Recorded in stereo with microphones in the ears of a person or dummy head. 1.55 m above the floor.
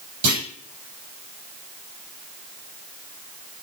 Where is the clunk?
45° right (ahead or behind), 8 m.